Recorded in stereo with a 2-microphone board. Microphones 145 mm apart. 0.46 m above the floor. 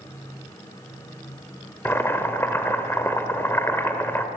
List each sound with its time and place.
1.9 s boiling: 15° left (ahead or behind), 1.5 m